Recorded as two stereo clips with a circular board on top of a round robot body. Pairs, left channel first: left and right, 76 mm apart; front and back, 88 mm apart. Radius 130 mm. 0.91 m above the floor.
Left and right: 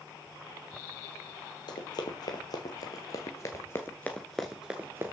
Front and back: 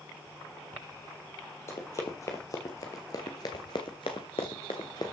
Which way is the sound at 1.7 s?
60° left.